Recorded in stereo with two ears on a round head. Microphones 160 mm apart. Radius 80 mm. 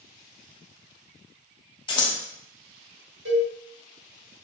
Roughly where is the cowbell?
Right.